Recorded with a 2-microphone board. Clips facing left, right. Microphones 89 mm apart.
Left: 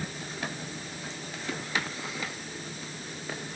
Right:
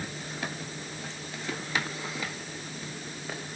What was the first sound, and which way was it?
Only background noise.